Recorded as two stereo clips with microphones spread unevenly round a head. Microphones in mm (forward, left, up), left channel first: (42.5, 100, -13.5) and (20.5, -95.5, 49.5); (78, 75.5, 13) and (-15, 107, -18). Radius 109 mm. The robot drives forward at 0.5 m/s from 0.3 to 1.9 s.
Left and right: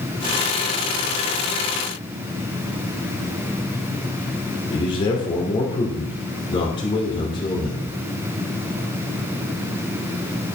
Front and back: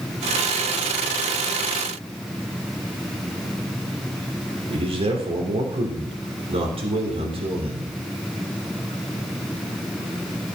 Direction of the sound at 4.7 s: 150° left.